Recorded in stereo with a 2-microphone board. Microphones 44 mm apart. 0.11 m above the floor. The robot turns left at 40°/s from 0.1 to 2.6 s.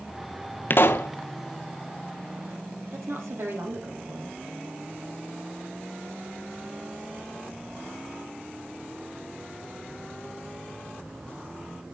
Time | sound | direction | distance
0.7 | a pop | 50° left (ahead or behind) | 0.7 m
2.9 | a woman speaking | 65° right (ahead or behind) | 3.5 m